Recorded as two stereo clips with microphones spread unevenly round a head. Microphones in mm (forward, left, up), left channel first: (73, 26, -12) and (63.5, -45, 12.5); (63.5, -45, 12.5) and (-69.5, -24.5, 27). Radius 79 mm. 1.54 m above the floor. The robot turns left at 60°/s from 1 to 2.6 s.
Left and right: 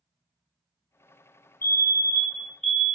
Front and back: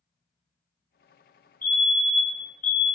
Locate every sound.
1.6 s a fire alarm: 65° left, 1.5 m; by 2.9 s 5° left, 1.5 m